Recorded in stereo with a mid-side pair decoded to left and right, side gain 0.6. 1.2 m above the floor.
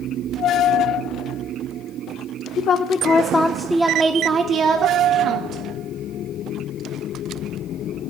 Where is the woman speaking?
55° left, 0.6 m; by 5.6 s 55° right, 1.2 m.